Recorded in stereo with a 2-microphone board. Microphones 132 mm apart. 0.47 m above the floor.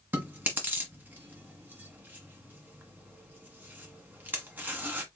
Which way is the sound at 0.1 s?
15° right (ahead or behind).